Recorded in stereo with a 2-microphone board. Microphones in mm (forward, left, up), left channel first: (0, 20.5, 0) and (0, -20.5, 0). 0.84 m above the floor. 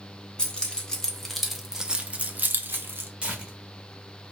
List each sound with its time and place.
0.4 s keys jangling: 25° left (ahead or behind), 1.2 m; by 3.1 s 70° right (ahead or behind), 0.8 m
3.2 s tearing paper: 25° right (ahead or behind), 1.3 m